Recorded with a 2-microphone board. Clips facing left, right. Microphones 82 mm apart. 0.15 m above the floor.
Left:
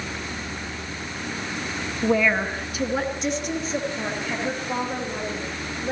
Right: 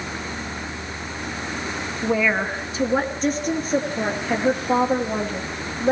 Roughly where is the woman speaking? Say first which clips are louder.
Even; centre.